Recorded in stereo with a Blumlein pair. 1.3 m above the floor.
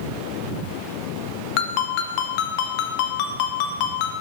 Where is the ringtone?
45° left, 0.7 m.